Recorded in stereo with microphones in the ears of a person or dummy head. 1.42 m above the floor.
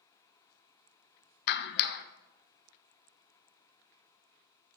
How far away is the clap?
About 0.6 m.